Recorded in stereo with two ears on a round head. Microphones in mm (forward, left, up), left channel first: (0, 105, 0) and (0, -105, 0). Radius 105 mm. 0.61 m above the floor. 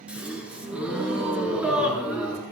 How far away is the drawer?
No drawer in this recording.